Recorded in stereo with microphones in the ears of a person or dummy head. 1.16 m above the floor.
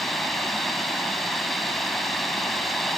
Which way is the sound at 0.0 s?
Centre (ahead or behind).